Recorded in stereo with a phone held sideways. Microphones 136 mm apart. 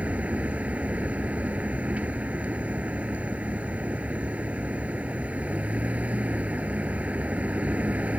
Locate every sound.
0.0 s a vehicle: 10° right (ahead or behind)